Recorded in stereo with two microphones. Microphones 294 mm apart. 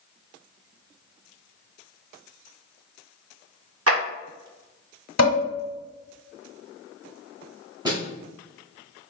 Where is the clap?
50° right (ahead or behind), 1.1 m.